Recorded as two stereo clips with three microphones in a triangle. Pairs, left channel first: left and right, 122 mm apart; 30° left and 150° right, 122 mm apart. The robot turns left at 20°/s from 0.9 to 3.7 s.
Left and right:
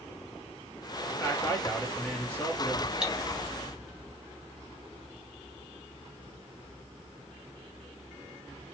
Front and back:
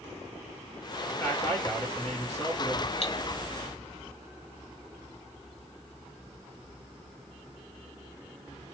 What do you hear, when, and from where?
1.1 s a man speaking: 70° left, 1.3 m; by 2.9 s 35° left, 1.3 m
3.0 s cutlery clinking: 5° right, 0.9 m; by 3.1 s 10° right, 0.9 m